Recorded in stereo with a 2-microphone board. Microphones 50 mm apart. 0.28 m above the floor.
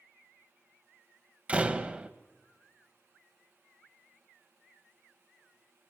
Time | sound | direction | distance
1.5 | a door slam | 25° right (ahead or behind) | 1.0 m